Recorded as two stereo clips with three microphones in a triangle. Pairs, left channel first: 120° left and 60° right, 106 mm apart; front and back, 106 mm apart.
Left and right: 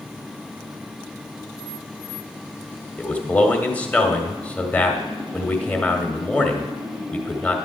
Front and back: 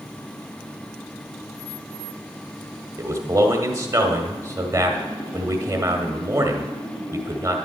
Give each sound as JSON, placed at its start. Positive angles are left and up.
{"t": 3.0, "sound": "a man speaking", "azimuth_deg": 180, "distance_m": 1.1}